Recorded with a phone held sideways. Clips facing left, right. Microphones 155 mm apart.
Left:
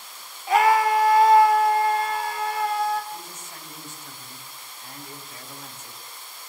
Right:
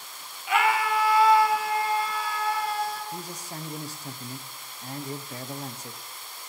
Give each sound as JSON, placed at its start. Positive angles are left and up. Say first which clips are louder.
{"t": 0.5, "sound": "a scream", "louder": "left 6 dB", "side_deg": 35, "distance_m": 1.2}
{"t": 3.1, "sound": "a man speaking", "louder": "right 3 dB", "side_deg": -35, "distance_m": 1.2}